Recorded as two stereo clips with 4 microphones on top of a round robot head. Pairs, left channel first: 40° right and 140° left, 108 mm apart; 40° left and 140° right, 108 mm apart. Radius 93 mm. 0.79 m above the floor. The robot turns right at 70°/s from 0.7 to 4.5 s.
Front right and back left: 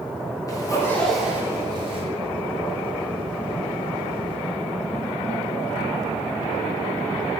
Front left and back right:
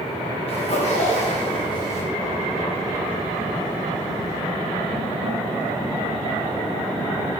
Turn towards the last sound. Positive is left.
turn(degrees=-75)